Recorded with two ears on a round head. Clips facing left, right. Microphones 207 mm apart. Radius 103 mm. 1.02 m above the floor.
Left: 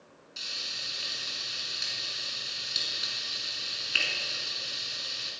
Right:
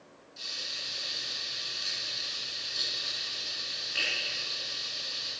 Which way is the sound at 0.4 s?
80° left.